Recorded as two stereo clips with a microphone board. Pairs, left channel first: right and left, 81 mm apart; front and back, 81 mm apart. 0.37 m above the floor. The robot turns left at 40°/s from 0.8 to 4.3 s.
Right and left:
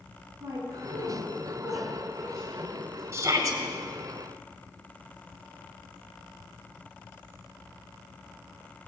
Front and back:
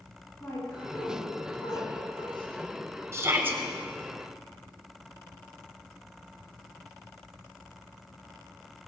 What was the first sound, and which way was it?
A woman speaking, 60° left.